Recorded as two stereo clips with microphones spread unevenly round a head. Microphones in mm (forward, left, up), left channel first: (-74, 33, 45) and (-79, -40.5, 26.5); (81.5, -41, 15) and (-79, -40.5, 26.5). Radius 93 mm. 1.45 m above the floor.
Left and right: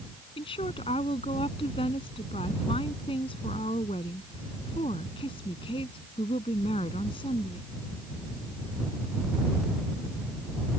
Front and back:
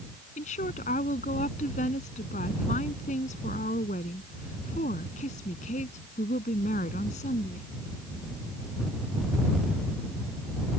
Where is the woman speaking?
55° left.